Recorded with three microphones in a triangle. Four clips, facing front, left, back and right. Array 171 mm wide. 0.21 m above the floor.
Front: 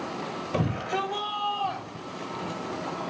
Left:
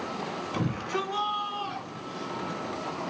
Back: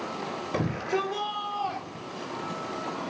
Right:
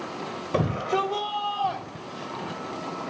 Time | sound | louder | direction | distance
0.5 | a shout | right 7 dB, even | 100° right | 6 m